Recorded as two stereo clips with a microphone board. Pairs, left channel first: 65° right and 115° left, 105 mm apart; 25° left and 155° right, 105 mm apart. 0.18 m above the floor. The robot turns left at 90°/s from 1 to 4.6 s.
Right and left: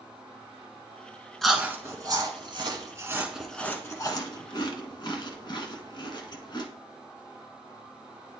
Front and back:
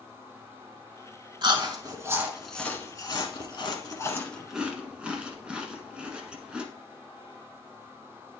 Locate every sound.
1.4 s chewing: 155° right, 1.2 m; by 6.7 s 80° right, 1.2 m